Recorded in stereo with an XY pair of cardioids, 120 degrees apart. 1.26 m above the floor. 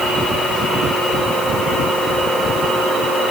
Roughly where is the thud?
I don't hear a thud.